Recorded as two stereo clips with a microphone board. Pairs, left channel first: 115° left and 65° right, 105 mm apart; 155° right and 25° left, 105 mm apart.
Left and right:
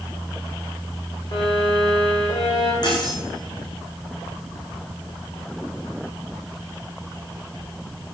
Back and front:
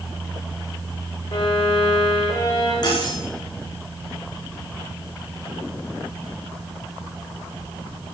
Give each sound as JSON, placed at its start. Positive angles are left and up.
{"t": 1.3, "sound": "a violin", "azimuth_deg": 160, "distance_m": 10.0}
{"t": 2.8, "sound": "cutlery clinking", "azimuth_deg": 160, "distance_m": 9.5}